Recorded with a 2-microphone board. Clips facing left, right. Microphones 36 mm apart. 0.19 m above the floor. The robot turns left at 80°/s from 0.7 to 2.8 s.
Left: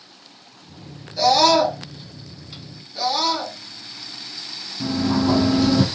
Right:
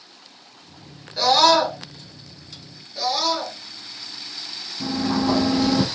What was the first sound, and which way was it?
A scream, 90° right.